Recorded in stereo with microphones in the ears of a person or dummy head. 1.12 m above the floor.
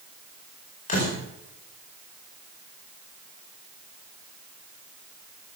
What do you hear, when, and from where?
0.9 s a door slam: 40° left (ahead or behind), 4 m